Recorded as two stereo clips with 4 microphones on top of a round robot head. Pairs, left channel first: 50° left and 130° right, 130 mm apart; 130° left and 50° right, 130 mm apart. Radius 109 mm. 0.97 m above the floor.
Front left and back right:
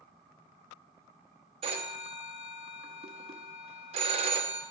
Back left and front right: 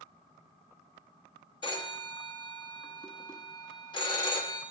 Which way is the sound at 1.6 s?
175° right.